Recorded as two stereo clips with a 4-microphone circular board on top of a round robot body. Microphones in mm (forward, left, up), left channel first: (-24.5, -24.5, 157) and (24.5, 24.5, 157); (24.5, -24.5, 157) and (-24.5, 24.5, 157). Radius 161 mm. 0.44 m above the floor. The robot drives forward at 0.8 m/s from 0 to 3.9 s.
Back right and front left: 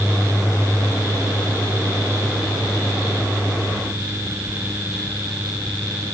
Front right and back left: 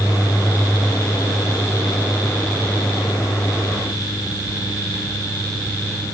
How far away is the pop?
I don't hear a pop.